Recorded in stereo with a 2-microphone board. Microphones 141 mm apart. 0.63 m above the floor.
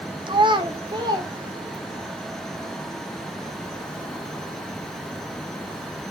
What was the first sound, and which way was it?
A child speaking, 35° right (ahead or behind).